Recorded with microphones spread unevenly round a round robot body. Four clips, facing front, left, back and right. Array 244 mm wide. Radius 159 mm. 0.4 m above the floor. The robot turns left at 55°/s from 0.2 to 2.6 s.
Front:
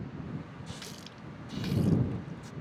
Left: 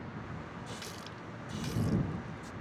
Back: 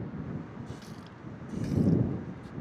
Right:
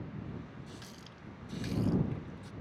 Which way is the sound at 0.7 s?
75° left.